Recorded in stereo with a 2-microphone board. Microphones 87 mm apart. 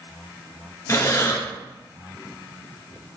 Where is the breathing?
35° left (ahead or behind), 1.0 m.